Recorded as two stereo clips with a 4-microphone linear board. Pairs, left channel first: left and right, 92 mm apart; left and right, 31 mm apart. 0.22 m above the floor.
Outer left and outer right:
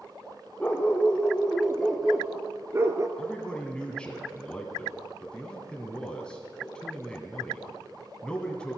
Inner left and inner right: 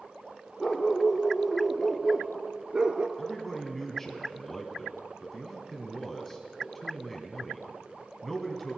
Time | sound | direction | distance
0.6 | a dog barking | 20° left (ahead or behind) | 1.9 m
3.2 | a man speaking | 10° left (ahead or behind) | 1.4 m